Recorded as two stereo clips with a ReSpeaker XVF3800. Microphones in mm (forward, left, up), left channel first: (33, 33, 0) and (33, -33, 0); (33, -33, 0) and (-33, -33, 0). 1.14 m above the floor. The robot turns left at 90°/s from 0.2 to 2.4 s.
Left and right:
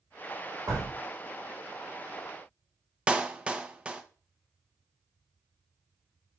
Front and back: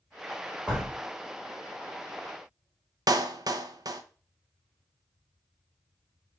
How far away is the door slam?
About 3 m.